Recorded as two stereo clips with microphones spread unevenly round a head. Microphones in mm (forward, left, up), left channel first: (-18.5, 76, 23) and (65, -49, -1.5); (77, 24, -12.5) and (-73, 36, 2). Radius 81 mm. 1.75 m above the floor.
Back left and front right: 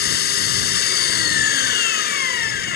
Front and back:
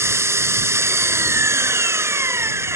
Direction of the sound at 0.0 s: 105° left.